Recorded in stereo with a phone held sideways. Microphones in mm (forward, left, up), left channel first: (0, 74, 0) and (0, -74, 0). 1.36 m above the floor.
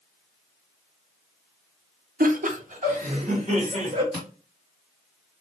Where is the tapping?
5° left (ahead or behind), 1.9 m.